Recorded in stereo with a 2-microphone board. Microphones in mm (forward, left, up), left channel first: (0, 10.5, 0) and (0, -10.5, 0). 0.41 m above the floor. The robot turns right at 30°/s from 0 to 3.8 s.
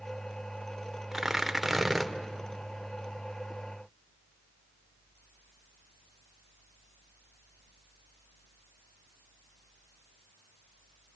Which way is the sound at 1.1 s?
15° right (ahead or behind).